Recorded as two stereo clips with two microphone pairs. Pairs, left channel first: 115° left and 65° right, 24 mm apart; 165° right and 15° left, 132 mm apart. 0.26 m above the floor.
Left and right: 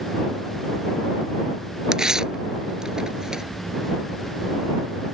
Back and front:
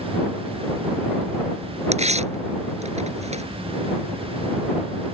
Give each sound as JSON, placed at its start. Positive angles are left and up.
{"t": 1.9, "sound": "tearing paper", "azimuth_deg": -5}